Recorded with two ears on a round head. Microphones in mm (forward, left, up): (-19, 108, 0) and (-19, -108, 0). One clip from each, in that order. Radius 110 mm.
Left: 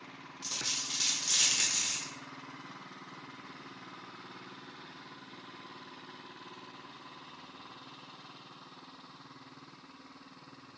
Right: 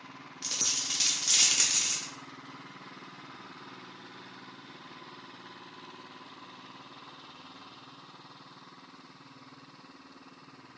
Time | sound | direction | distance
0.4 | a dropped coin | 15° right (ahead or behind) | 0.6 m